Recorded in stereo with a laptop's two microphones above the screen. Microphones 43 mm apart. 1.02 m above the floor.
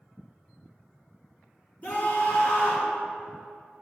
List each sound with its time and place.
1.8 s a scream: 45° left (ahead or behind), 1.9 m